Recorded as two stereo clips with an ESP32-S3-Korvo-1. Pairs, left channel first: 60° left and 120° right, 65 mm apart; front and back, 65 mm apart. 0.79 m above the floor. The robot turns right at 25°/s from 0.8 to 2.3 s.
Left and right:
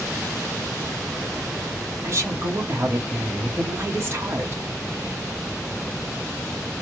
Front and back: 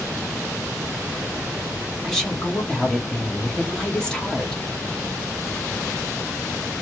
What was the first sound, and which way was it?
A woman speaking, 80° right.